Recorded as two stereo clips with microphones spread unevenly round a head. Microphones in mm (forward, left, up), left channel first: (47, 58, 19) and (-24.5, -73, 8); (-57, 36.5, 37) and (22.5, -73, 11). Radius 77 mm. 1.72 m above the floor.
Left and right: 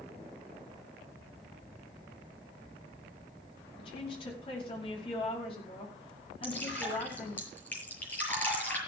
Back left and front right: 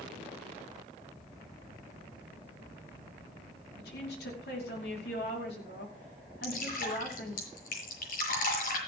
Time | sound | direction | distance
3.8 | a woman speaking | 120° left | 5 m
6.4 | dripping | 140° left | 6.5 m